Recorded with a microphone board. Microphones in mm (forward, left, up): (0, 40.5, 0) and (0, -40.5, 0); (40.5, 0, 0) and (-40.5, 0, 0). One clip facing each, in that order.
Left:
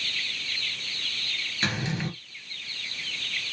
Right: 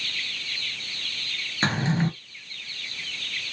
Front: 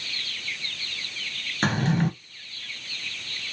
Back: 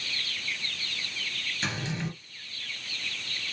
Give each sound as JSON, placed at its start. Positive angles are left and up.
{"t": 1.6, "sound": "a drawer", "azimuth_deg": -35, "distance_m": 1.1}